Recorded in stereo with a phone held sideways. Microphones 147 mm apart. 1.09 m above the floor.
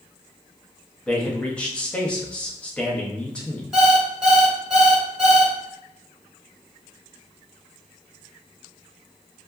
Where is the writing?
I don't hear writing.